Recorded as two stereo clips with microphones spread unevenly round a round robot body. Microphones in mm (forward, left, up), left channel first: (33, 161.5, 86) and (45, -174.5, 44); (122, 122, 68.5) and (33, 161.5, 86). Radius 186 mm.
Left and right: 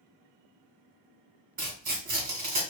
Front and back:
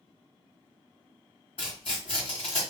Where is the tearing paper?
40° right, 1.7 m.